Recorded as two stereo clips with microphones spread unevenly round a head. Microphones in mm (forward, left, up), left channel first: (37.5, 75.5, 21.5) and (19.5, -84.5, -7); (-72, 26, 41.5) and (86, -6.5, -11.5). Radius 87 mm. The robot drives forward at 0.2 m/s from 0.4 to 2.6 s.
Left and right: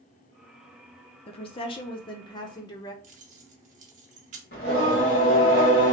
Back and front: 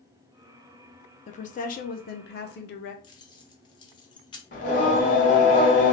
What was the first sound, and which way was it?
A woman speaking, 125° left.